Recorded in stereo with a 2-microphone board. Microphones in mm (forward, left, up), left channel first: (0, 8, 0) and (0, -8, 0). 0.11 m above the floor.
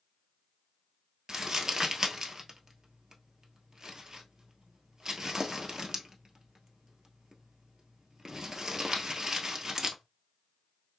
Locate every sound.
1.3 s crumpling: 25° right (ahead or behind), 1.0 m